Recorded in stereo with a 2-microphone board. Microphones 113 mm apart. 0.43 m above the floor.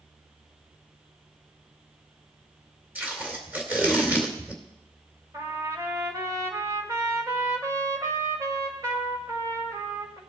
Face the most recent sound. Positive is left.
turn(degrees=-30)  # may be behind; listen again after turning